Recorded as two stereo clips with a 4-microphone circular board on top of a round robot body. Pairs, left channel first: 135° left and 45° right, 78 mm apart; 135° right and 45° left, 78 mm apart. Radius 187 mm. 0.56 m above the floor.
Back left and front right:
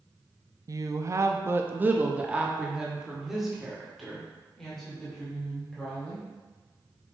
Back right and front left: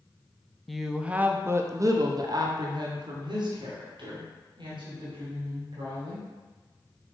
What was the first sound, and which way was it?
A woman speaking, 50° right.